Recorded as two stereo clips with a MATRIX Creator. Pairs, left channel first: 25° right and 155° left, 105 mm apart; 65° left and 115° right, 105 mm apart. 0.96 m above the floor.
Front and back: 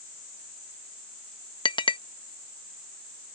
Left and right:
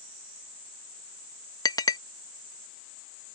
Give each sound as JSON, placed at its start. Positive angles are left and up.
{"t": 1.6, "sound": "a clink", "azimuth_deg": 15}